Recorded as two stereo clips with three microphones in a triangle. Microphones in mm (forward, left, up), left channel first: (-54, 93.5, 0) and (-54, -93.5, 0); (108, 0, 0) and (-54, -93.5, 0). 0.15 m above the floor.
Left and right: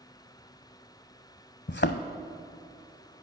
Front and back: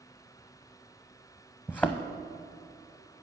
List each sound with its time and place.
1.7 s a thud: 110° left, 0.6 m